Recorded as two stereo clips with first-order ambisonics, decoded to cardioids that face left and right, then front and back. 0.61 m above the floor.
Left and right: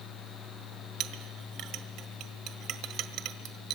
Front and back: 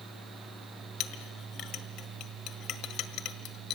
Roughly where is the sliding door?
I don't hear a sliding door.